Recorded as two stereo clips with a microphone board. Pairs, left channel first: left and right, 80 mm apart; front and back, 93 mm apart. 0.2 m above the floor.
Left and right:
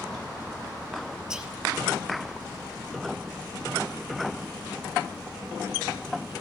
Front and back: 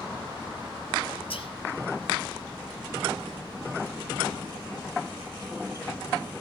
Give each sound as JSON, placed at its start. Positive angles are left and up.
{"t": 1.3, "sound": "whispering", "azimuth_deg": -10, "distance_m": 5.0}